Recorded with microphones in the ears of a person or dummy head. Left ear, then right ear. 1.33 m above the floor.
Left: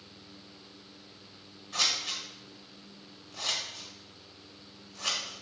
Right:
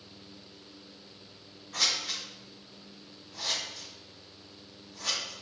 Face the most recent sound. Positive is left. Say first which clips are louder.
# even
turn(degrees=20)  # may be behind; listen again after turning